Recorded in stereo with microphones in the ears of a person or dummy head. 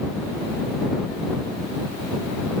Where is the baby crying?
No baby crying in this recording.